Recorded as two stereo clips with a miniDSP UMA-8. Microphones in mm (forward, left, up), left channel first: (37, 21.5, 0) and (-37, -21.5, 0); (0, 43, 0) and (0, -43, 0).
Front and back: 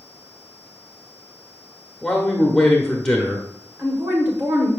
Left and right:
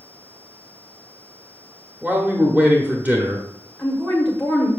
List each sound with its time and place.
2.0 s a man speaking: 50° right, 0.9 m
3.8 s a woman speaking: 160° left, 1.4 m